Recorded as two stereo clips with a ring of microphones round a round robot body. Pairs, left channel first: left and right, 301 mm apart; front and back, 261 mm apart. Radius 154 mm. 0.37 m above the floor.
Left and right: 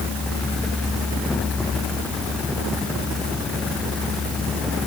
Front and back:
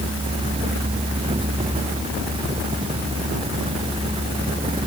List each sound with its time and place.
Only background noise.